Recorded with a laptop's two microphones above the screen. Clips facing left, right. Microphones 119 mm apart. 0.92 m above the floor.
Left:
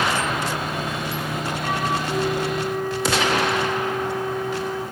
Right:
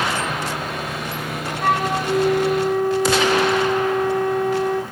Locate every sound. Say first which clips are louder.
0.2 s sawing: even; 75° right (ahead or behind), 10 m
1.6 s a flute: right 7 dB; 65° right (ahead or behind), 1.9 m